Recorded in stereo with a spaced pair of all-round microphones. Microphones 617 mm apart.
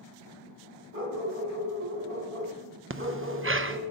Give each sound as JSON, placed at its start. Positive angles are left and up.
{"t": 0.9, "sound": "a dog barking", "side_deg": -65, "distance_m": 3.0}
{"t": 2.9, "sound": "breathing", "side_deg": -20, "distance_m": 0.6}